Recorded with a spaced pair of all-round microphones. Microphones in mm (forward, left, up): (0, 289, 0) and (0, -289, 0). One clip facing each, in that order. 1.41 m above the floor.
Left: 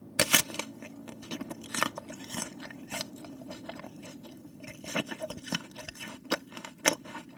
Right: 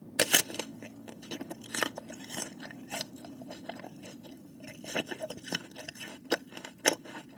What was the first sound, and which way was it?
Chewing, 30° left (ahead or behind).